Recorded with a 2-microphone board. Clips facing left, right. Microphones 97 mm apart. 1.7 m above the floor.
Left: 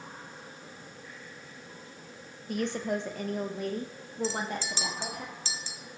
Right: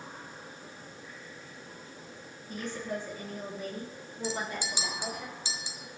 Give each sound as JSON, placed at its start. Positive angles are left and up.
{"t": 2.5, "sound": "a woman speaking", "side_deg": 65, "distance_m": 1.3}
{"t": 4.2, "sound": "a clink", "side_deg": -15, "distance_m": 1.6}